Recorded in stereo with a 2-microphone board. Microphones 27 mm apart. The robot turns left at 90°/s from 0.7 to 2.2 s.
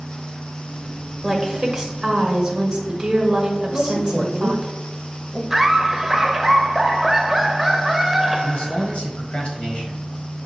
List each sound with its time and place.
1.2 s a woman speaking: 10° right (ahead or behind), 1.3 m; by 4.7 s 20° right (ahead or behind), 1.3 m
3.7 s a woman speaking: 30° left (ahead or behind), 1.5 m
5.5 s laughter: 10° right (ahead or behind), 0.9 m
8.4 s a man speaking: 45° left (ahead or behind), 1.6 m